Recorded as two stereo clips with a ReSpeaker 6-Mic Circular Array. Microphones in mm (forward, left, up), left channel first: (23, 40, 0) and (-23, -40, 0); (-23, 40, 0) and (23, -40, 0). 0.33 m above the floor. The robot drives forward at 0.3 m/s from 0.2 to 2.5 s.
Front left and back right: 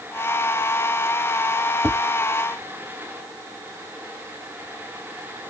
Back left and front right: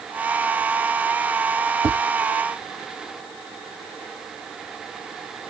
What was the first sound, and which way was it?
Tapping, 105° right.